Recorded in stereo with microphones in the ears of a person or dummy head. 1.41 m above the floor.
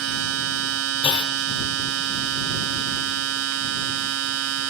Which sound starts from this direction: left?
A clunk, at 1.0 s.